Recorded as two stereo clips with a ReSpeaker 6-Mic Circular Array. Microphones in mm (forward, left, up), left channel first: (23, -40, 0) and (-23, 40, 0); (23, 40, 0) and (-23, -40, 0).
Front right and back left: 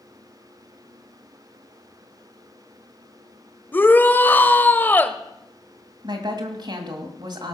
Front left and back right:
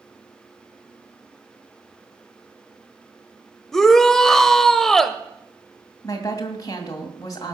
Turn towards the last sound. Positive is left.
turn(degrees=100)